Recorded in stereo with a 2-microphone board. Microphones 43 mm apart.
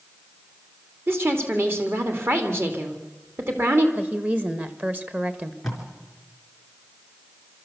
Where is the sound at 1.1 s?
55° right (ahead or behind), 2.5 m.